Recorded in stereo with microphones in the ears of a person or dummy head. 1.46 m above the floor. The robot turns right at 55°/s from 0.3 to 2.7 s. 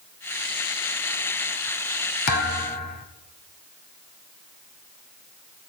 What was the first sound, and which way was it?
A thud, 50° left (ahead or behind).